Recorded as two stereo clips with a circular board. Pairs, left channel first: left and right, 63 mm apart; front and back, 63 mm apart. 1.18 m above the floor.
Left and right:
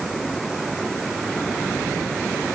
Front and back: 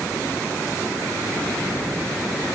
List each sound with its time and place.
Only background noise.